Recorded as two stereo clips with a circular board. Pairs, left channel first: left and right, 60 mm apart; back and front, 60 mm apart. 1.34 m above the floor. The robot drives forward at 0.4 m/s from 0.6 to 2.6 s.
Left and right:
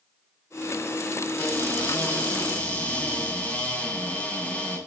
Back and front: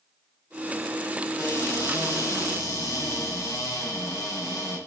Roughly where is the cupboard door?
Behind left.